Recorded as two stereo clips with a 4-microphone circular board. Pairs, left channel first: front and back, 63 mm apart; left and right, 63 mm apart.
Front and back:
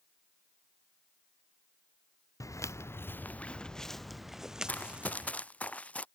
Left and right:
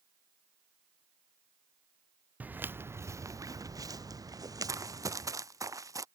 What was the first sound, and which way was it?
Footsteps, 30° right.